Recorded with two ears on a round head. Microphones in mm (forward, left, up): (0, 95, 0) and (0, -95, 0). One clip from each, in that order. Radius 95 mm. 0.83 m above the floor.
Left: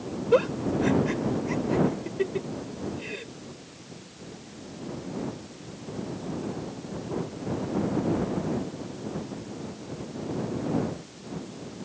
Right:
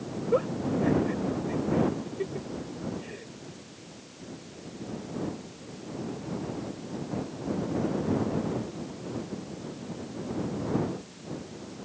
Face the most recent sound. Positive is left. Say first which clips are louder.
# left 4 dB
turn(degrees=70)  # may be behind; listen again after turning